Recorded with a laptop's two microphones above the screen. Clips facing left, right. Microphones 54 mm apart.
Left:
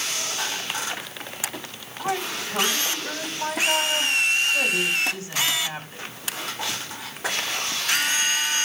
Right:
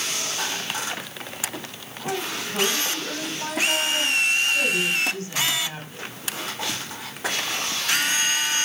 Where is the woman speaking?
20° left (ahead or behind), 7.5 m.